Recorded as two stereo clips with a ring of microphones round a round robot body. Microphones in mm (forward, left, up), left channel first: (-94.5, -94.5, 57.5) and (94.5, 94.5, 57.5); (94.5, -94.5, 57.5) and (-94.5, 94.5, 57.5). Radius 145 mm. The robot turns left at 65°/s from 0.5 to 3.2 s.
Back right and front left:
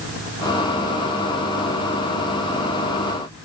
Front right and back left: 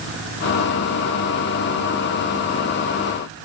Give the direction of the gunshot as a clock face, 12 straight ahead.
I don't hear a gunshot.